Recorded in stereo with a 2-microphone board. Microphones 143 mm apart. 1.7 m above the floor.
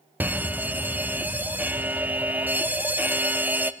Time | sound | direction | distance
0.2 | a fire alarm | 10° right (ahead or behind) | 0.9 m